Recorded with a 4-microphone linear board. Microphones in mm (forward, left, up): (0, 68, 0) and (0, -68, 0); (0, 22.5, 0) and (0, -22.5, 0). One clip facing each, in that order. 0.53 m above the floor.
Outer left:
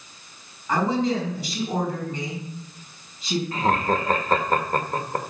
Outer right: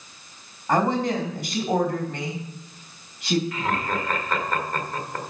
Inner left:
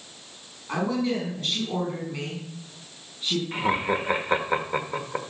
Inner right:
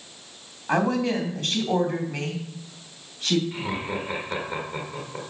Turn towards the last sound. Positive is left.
turn(degrees=35)  # may be behind; listen again after turning